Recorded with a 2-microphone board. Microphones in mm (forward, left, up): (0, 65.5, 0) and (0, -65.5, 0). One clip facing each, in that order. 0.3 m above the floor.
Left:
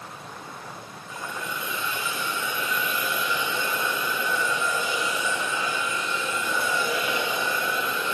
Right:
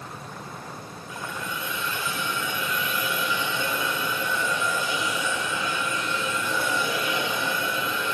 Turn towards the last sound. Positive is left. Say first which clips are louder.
# even
turn(degrees=0)  # may be behind; listen again after turning